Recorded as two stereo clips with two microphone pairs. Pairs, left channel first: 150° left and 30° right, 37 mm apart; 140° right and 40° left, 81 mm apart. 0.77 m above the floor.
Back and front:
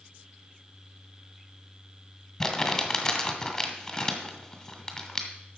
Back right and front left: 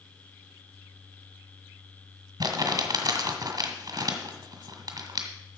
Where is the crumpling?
75° left, 1.6 m.